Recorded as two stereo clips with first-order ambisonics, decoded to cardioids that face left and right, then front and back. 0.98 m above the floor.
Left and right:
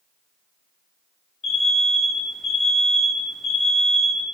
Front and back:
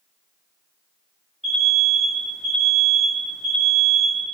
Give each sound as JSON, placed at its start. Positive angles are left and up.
{"t": 1.4, "sound": "an alarm", "azimuth_deg": 75, "distance_m": 1.5}